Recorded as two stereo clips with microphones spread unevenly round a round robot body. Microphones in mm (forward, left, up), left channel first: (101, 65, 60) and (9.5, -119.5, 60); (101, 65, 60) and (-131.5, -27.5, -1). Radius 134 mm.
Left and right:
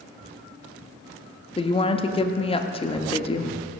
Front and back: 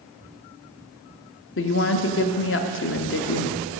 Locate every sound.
1.6 s a woman speaking: 25° left, 0.8 m